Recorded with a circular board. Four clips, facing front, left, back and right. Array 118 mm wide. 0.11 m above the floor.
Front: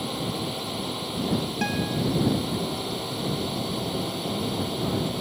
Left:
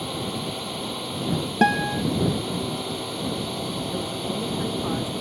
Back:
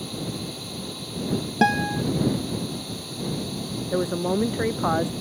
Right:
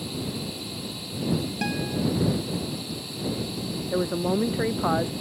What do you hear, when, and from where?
0.0 s a drone: 55° left
1.6 s a guitar: 130° left
3.9 s a woman speaking: 145° right